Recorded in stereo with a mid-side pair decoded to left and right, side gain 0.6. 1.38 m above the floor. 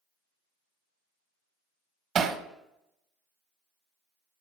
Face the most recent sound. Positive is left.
turn(degrees=-50)